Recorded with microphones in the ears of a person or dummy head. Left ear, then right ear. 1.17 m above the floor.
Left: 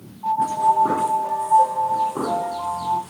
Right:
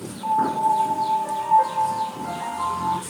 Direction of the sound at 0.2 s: 80° right.